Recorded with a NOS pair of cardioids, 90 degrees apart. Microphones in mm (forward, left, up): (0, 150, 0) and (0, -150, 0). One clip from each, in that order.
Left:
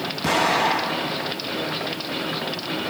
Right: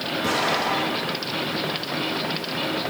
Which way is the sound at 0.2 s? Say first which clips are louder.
Left 4 dB; 40° left.